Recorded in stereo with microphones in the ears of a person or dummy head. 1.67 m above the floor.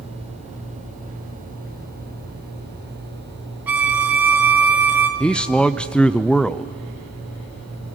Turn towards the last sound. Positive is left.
turn(degrees=0)  # may be behind; listen again after turning